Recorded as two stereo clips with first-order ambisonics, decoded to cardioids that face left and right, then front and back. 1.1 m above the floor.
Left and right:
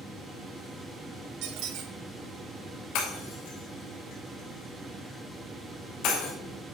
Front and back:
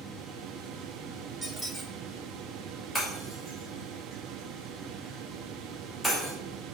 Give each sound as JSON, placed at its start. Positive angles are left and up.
{"t": 1.4, "sound": "a squeak", "azimuth_deg": -85, "distance_m": 1.1}
{"t": 3.0, "sound": "breaking glass", "azimuth_deg": 75, "distance_m": 2.5}